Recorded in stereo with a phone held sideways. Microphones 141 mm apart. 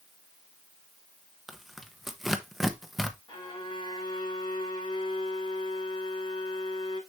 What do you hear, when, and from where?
1.5 s tearing paper: centre (ahead or behind), 0.9 m
3.3 s a violin: 35° left (ahead or behind), 5 m